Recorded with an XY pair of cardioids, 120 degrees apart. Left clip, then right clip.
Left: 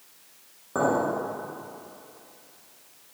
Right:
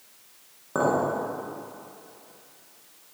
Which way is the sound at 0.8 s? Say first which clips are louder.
Even; 15° right.